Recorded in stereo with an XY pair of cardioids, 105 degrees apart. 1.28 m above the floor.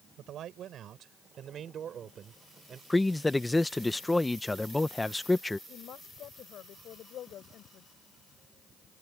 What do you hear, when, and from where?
0.2 s a man speaking: 70° right; by 2.8 s 45° right
2.9 s a man speaking: 15° left
5.7 s a woman speaking: 70° left